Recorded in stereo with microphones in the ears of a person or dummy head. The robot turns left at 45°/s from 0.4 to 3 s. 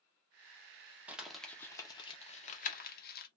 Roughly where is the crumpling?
Centre.